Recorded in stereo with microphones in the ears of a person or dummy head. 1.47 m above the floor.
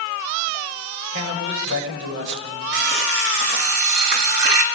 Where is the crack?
I don't hear a crack.